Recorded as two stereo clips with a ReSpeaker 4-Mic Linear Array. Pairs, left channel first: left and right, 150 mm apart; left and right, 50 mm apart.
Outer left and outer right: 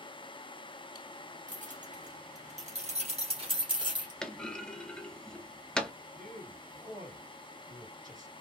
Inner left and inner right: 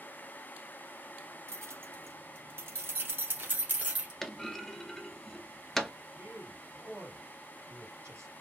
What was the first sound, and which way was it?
Keys jangling, 60° right (ahead or behind).